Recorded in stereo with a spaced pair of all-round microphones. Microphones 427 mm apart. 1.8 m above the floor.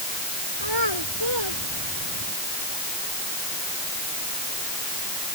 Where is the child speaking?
80° right; by 2.3 s 75° right (ahead or behind).